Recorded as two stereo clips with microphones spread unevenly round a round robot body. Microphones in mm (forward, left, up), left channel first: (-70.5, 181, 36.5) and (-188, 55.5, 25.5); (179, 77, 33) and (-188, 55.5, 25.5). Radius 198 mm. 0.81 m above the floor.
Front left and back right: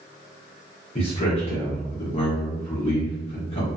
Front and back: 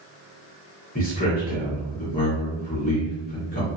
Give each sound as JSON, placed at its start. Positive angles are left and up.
{"t": 0.9, "sound": "a man speaking", "azimuth_deg": 50, "distance_m": 1.0}